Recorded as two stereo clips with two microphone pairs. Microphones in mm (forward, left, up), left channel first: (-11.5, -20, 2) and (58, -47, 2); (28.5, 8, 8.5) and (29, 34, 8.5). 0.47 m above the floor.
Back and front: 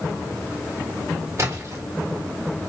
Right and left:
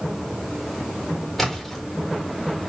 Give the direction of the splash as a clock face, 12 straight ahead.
1 o'clock.